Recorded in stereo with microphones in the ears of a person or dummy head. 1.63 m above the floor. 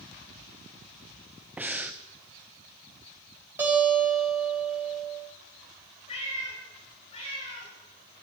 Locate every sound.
1.6 s breathing: 5° right (ahead or behind), 0.6 m
3.6 s a guitar: 10° right (ahead or behind), 4 m
6.1 s a cat meowing: 35° left (ahead or behind), 4 m